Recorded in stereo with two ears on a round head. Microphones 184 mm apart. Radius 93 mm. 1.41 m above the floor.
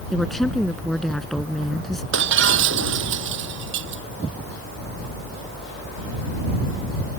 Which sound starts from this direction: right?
Breaking glass, at 2.1 s.